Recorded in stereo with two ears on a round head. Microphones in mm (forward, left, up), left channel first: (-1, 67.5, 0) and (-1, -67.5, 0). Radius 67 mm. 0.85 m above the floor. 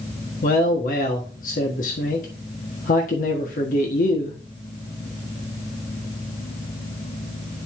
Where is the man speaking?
60° left (ahead or behind), 1.4 m.